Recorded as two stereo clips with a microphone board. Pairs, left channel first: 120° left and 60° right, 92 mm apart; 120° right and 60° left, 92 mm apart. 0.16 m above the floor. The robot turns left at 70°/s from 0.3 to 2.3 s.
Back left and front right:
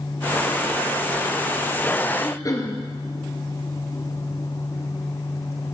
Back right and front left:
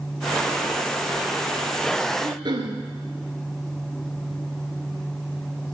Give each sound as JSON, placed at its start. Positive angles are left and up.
{"t": 2.2, "sound": "throat clearing", "azimuth_deg": 85, "distance_m": 1.7}